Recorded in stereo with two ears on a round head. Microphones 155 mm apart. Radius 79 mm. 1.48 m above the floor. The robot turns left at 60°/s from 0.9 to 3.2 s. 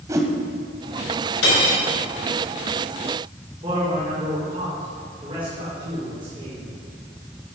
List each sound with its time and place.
0.1 s a whoosh: 20° right (ahead or behind), 1.5 m
1.4 s cutlery clinking: 80° left, 5 m; by 1.8 s 60° left (ahead or behind), 5 m
3.6 s a man speaking: 30° right (ahead or behind), 5.5 m